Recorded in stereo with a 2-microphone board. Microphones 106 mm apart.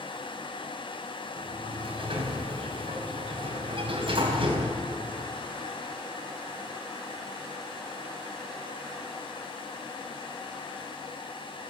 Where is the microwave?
No microwave in this recording.